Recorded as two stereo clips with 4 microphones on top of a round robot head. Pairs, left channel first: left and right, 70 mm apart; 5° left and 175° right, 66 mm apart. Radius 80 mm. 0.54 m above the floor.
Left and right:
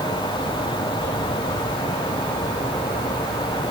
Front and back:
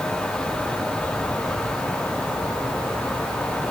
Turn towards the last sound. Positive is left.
No sound to turn to.